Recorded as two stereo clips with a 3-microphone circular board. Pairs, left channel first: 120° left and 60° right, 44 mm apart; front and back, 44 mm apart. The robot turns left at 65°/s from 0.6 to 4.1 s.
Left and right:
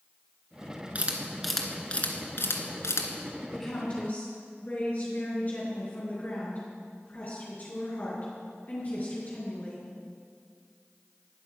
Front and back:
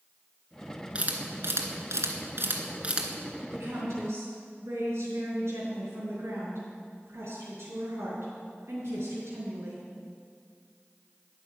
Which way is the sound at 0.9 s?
115° right.